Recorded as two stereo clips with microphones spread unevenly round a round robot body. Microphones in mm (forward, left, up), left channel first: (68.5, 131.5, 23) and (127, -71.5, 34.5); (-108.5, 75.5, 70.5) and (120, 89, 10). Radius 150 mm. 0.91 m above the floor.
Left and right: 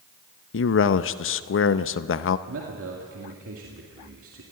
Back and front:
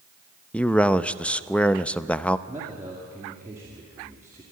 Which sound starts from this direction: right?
A man speaking, at 2.5 s.